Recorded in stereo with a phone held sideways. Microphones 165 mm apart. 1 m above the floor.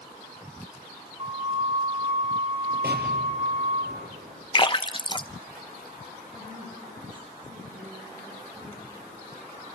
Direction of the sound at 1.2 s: 40° right (ahead or behind).